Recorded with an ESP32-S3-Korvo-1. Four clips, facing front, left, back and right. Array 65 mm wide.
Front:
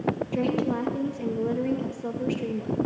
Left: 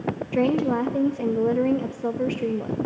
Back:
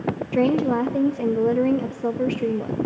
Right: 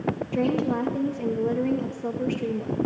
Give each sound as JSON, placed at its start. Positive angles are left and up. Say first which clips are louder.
{"t": 0.3, "sound": "a woman speaking", "louder": "left 4 dB, back 9 dB", "azimuth_deg": 150, "distance_m": 0.5}